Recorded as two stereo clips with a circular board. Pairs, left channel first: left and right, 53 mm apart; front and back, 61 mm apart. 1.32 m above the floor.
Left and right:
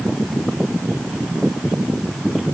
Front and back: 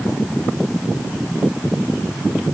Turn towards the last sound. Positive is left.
No sound to turn to.